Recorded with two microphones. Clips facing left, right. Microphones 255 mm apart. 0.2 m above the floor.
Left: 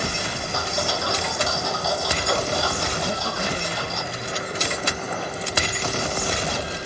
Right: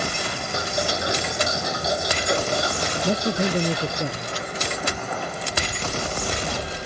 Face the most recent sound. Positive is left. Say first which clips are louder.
# right 5 dB
turn(degrees=-45)  # may be behind; listen again after turning